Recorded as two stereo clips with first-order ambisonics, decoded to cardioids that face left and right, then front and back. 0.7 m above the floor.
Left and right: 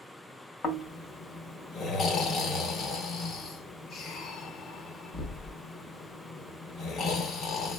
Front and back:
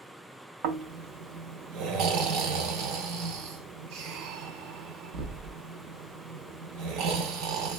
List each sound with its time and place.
0.6 s snoring: 155° left, 0.6 m